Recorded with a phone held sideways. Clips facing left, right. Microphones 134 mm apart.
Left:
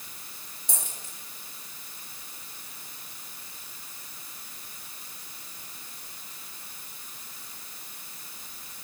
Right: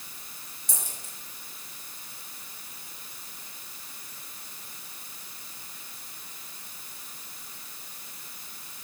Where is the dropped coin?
60° left (ahead or behind), 5 m.